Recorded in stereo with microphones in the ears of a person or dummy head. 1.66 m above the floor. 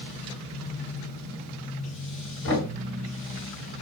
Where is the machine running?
45° left (ahead or behind), 2.5 m.